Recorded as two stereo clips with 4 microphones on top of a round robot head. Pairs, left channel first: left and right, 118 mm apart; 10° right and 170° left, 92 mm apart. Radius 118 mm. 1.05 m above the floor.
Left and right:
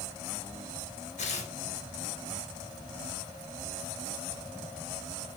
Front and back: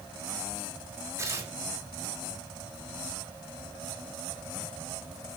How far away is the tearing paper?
About 4.5 m.